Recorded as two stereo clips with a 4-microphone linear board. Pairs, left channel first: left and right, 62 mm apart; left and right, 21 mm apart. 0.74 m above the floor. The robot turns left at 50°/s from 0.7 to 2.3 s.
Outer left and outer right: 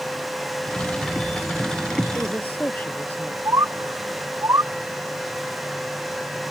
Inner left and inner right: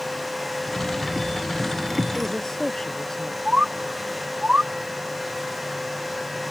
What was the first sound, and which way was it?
A woman speaking, 35° left (ahead or behind).